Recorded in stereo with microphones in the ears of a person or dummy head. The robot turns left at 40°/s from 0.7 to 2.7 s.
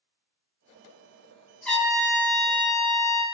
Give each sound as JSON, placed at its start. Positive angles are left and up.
{"t": 1.6, "sound": "a trumpet", "azimuth_deg": 180, "distance_m": 0.6}